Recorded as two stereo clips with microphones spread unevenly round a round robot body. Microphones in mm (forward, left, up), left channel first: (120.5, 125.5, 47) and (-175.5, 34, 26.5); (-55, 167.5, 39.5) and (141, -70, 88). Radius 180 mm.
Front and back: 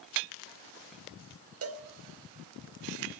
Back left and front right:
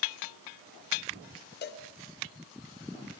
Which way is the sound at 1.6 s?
175° left.